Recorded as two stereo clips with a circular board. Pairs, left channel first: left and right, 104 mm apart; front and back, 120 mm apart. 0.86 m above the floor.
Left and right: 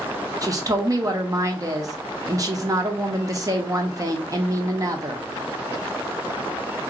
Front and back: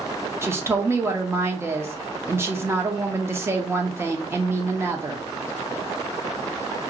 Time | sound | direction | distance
0.4 | a woman speaking | 125° right | 0.7 m